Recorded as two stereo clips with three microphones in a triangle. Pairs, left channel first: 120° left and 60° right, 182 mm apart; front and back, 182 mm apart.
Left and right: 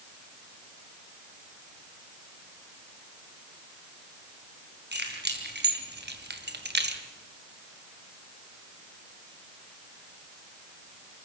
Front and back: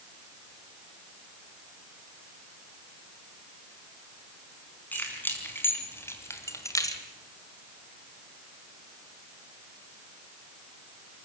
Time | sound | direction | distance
4.9 | keys jangling | 80° right | 4.5 m